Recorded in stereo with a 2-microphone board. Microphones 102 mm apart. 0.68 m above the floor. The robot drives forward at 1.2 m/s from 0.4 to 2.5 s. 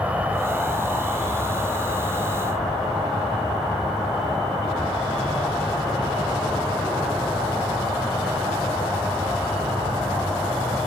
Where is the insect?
15° right (ahead or behind), 0.7 m; by 10.9 s 5° right (ahead or behind), 3 m.